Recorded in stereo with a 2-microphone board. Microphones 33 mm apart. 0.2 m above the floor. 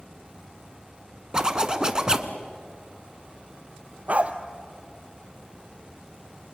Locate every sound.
1.3 s a zipper: 25° right (ahead or behind), 1.3 m
4.1 s a dog barking: 40° right (ahead or behind), 1.3 m